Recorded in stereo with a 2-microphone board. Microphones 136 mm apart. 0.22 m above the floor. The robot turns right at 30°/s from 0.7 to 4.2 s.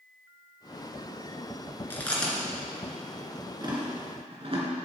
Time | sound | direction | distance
1.9 | chewing | 15° left (ahead or behind) | 2.5 m